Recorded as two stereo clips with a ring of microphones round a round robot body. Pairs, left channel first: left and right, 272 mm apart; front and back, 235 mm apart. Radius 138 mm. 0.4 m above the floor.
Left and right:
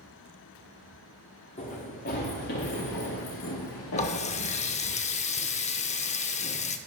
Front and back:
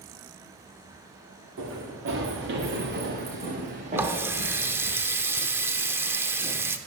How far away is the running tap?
About 0.6 m.